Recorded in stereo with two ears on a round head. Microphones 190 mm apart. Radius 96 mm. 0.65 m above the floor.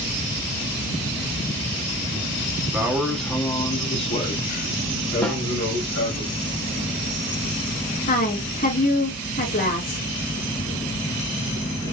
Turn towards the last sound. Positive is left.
turn(degrees=40)  # may be behind; listen again after turning